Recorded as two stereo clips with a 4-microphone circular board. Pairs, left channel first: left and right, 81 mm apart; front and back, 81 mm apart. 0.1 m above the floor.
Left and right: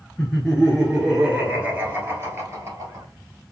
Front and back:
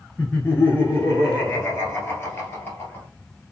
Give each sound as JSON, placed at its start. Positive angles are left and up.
{"t": 0.2, "sound": "laughter", "azimuth_deg": 30, "distance_m": 1.4}